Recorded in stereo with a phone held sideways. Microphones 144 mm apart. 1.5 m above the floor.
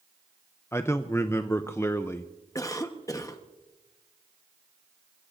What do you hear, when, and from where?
0.7 s a man speaking: 15° left (ahead or behind), 0.5 m
2.5 s a cough: 20° left (ahead or behind), 1.0 m